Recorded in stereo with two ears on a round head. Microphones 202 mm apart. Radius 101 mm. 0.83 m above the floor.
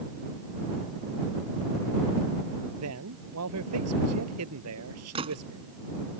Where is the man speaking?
80° right.